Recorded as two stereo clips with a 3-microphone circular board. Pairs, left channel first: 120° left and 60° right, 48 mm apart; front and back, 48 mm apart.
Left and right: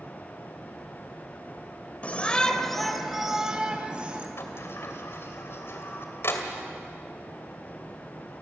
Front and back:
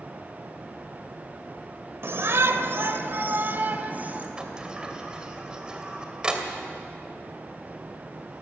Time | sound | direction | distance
2.0 | a shout | 175° left | 1.4 m
4.4 | a sliding door | 115° left | 2.5 m